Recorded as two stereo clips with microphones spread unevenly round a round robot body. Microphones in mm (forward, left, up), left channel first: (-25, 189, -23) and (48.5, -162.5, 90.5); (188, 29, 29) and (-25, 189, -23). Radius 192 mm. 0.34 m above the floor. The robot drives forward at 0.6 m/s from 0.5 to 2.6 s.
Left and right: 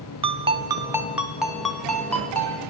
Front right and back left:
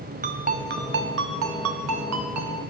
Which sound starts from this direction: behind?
A ringtone, at 0.2 s.